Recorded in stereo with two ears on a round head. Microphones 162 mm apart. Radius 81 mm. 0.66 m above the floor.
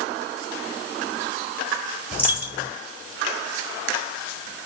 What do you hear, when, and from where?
2.1 s a dropped coin: 10° right (ahead or behind), 7 m